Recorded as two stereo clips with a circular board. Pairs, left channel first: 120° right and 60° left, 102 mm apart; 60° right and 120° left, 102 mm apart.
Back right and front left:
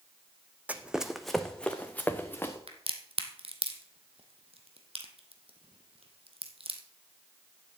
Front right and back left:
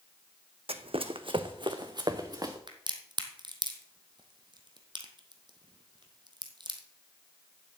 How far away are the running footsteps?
About 0.8 m.